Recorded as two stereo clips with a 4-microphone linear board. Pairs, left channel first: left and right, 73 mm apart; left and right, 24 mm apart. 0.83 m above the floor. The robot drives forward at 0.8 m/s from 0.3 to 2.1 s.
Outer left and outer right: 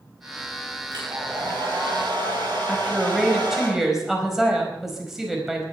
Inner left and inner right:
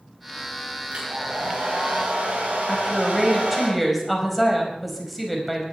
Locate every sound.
0.9 s a hair dryer: 65° right (ahead or behind), 7 m; by 3.7 s 75° right (ahead or behind), 6.5 m
2.7 s a woman speaking: 5° right (ahead or behind), 4.5 m